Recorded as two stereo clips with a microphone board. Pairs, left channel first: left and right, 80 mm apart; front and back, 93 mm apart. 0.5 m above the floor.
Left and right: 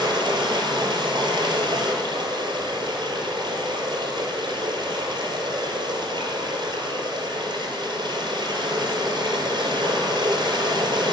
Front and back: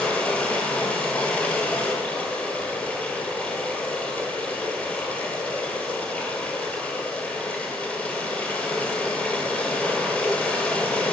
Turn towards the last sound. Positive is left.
turn(degrees=-75)